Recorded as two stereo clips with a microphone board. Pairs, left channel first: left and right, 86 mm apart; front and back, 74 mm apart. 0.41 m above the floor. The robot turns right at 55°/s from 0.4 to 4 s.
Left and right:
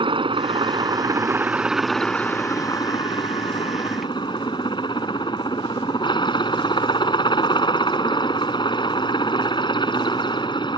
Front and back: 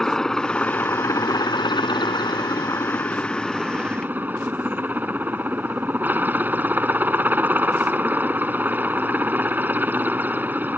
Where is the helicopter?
80° right; by 10.8 s 115° left.